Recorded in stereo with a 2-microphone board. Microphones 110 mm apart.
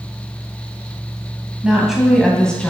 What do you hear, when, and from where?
1.6 s a woman speaking: 10° right (ahead or behind), 1.8 m; by 2.7 s 10° left (ahead or behind), 2 m